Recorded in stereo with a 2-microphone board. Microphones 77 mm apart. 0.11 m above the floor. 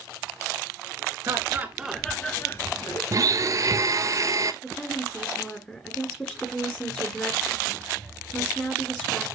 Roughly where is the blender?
Right.